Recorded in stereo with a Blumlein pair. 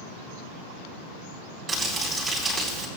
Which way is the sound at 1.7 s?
15° right.